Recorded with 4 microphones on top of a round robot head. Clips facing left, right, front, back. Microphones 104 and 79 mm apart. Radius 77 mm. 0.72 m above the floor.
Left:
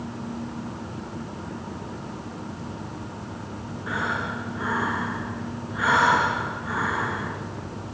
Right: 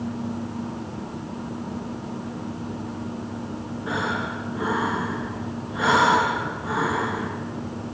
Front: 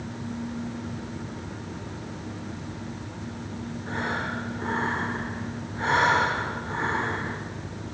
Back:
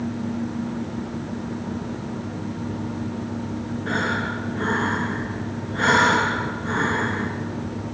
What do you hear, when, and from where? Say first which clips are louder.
3.9 s breathing: right 1 dB, back 5 dB; 160° right, 3 m